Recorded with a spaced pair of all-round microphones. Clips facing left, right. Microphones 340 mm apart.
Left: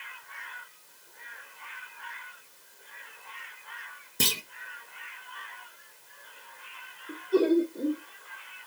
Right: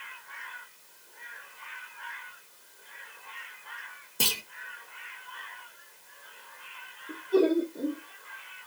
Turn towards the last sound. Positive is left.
turn(degrees=0)  # may be behind; listen again after turning